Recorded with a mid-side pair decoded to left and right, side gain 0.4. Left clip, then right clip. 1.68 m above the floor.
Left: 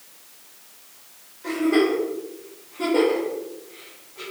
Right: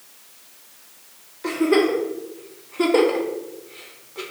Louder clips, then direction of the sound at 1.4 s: Right 2 dB; 70° right.